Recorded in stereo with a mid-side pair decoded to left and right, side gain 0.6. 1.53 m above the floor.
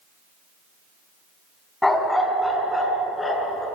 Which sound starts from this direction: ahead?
A dog barking, at 1.8 s.